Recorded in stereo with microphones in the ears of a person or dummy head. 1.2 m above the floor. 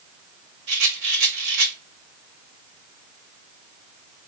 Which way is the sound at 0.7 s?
65° right (ahead or behind).